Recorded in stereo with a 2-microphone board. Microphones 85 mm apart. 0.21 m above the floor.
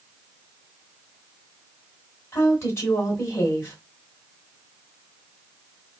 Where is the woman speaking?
30° left (ahead or behind), 1.5 m.